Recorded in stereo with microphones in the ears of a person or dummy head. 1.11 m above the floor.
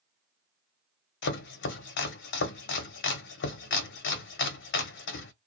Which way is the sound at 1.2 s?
55° left (ahead or behind).